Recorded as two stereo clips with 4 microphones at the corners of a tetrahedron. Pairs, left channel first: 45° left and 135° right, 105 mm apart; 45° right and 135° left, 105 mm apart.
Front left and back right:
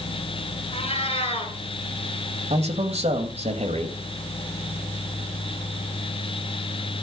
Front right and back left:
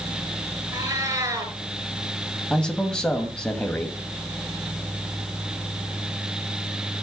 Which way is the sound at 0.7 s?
75° left.